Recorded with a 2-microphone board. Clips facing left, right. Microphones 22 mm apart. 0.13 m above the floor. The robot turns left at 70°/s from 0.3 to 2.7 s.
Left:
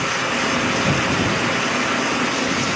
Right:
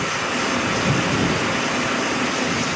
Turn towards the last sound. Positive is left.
No sound to turn to.